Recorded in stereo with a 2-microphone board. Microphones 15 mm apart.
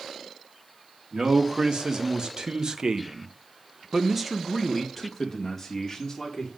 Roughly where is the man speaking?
Right.